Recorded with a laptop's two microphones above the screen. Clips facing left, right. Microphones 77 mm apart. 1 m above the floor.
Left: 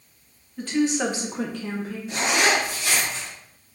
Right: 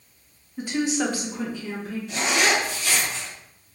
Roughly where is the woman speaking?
Centre.